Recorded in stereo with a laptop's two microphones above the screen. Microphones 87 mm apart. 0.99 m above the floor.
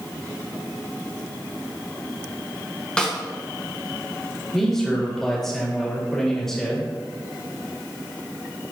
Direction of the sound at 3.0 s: 10° left (ahead or behind).